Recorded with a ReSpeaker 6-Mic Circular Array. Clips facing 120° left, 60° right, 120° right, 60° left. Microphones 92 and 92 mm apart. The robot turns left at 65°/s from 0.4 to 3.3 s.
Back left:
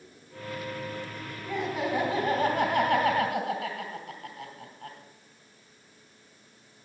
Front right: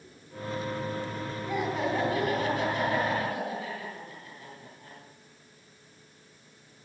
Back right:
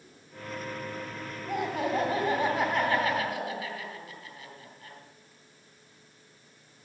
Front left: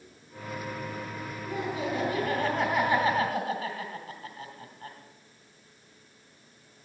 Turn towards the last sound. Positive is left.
turn(degrees=110)